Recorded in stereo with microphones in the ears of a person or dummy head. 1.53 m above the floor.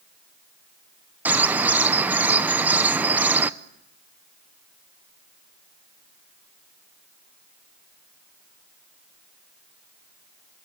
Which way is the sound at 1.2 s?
5° right (ahead or behind).